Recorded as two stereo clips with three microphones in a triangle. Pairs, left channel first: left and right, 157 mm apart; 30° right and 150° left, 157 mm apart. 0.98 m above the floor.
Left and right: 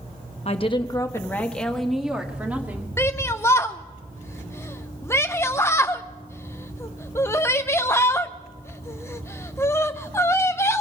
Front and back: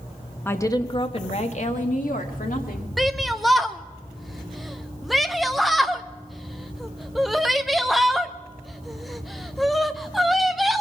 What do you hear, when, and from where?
0.5 s a woman speaking: 45° left, 1.0 m; by 2.9 s 15° right, 2.5 m
3.0 s a shout: 60° left, 0.5 m